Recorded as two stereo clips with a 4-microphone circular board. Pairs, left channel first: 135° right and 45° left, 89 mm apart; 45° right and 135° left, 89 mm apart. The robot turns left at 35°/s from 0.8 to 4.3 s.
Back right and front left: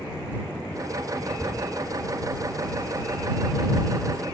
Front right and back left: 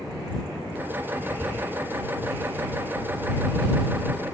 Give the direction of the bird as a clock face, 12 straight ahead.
7 o'clock.